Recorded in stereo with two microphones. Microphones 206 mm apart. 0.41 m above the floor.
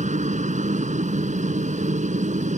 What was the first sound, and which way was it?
A helicopter, 35° right (ahead or behind).